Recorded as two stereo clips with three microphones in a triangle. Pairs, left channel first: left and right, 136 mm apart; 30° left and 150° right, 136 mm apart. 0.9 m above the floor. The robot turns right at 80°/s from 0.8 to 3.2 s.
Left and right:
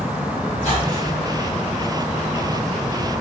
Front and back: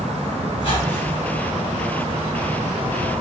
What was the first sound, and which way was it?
A squeak, 75° left.